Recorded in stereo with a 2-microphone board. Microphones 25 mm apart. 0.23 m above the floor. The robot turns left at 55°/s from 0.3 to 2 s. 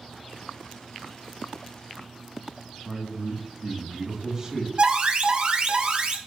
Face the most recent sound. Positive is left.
turn(degrees=-45)  # may be behind; listen again after turning